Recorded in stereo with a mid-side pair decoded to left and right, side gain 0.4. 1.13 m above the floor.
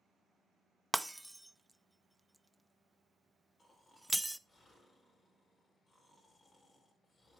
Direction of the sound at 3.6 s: 35° left.